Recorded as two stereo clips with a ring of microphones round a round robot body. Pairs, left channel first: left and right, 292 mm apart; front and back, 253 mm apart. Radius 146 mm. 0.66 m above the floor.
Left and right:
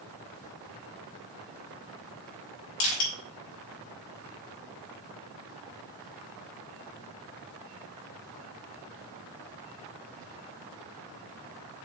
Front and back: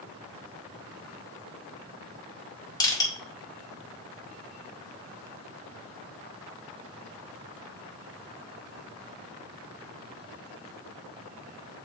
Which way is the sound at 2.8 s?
75° left.